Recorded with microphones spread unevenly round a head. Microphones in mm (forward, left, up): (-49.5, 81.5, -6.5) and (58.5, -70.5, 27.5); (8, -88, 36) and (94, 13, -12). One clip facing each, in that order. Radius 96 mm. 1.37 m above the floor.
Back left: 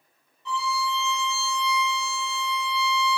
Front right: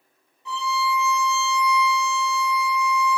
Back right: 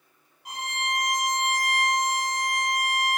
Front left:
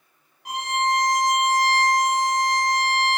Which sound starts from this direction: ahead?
A violin, at 0.5 s.